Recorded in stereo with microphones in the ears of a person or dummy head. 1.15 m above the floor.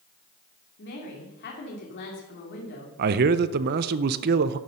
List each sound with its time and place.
0.8 s a woman speaking: 55° left (ahead or behind), 2.5 m
3.0 s a man speaking: 55° right (ahead or behind), 0.5 m